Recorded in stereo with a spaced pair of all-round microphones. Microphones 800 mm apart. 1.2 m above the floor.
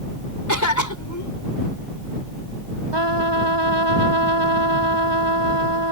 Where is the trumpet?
30° right (ahead or behind).